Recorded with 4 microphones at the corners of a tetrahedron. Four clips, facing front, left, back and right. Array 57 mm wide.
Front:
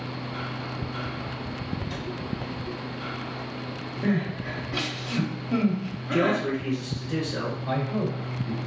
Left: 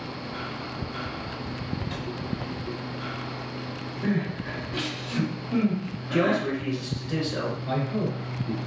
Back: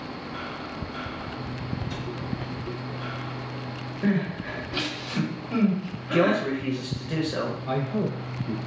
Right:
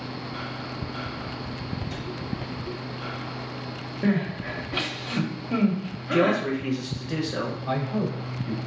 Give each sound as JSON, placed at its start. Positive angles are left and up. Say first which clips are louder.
{"t": 1.9, "sound": "a cupboard door", "louder": "left 1 dB, even", "azimuth_deg": 95, "distance_m": 2.0}
{"t": 4.0, "sound": "crying", "louder": "right 3 dB, back 1 dB", "azimuth_deg": -80, "distance_m": 1.0}
{"t": 6.1, "sound": "a man speaking", "louder": "right 2 dB, back 2 dB", "azimuth_deg": -165, "distance_m": 1.0}
{"t": 7.7, "sound": "a man speaking", "louder": "right 1 dB, front 2 dB", "azimuth_deg": -25, "distance_m": 1.1}